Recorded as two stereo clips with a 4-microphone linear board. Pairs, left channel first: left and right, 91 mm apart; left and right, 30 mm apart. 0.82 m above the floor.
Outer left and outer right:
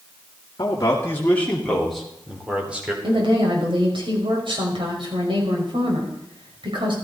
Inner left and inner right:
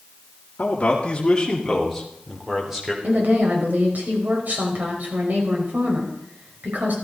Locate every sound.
0.6 s a man speaking: 40° left (ahead or behind), 2 m; by 2.9 s 15° right (ahead or behind), 3.5 m
3.0 s a woman speaking: 70° right (ahead or behind), 5 m